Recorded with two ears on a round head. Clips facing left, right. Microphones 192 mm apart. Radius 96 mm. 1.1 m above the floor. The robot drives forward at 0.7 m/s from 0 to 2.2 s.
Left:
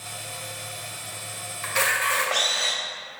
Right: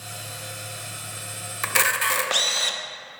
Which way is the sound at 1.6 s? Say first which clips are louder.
Even; 65° right (ahead or behind).